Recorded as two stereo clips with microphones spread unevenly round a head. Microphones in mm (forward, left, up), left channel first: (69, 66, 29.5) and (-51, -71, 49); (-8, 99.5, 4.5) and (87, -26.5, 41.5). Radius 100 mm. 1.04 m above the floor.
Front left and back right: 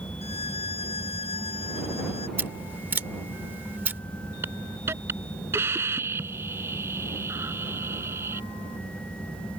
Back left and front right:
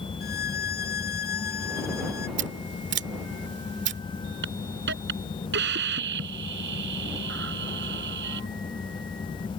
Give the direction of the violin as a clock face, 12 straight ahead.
8 o'clock.